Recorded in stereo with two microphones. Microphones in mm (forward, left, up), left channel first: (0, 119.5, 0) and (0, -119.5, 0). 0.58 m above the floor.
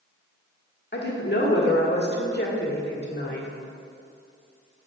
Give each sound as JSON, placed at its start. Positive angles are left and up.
{"t": 0.9, "sound": "a woman speaking", "side_deg": 45, "distance_m": 1.3}